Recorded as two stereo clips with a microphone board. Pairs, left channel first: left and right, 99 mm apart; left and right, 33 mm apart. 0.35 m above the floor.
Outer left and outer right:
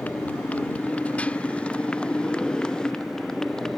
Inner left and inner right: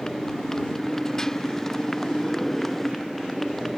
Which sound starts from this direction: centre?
A motorcycle, at 0.0 s.